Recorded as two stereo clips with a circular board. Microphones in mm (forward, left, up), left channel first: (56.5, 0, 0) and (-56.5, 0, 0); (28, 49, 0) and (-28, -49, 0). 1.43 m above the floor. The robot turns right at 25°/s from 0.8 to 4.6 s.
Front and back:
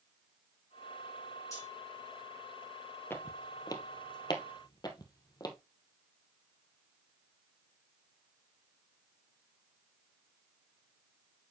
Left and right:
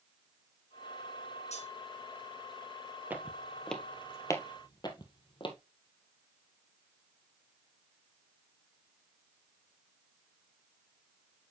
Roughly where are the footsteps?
Ahead right.